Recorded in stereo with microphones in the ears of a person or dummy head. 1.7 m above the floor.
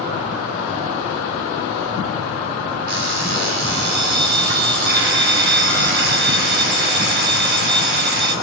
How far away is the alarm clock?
About 2.0 m.